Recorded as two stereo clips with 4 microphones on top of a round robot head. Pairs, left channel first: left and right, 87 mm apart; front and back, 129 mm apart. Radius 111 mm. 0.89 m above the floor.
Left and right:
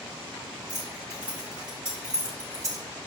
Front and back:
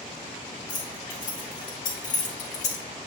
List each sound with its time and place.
0.7 s keys jangling: 25° right, 3 m; by 2.9 s 35° right, 0.6 m